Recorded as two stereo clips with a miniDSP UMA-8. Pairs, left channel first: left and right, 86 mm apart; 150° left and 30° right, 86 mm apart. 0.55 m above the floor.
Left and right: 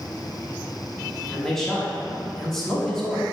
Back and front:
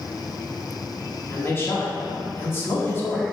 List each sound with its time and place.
1.3 s a man speaking: 170° left, 0.9 m